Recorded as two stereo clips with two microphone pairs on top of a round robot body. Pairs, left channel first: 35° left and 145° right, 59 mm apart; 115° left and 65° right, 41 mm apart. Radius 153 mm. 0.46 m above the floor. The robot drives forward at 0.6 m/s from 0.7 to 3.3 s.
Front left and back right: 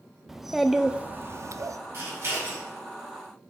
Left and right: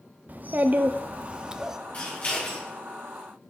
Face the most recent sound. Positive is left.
turn(degrees=170)